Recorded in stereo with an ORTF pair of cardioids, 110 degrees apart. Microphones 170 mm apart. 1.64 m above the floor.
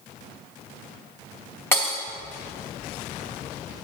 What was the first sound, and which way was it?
Breaking glass, 10° left.